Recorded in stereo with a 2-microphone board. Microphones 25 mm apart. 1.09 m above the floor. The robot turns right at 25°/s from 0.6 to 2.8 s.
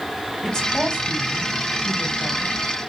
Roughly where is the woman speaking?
Left.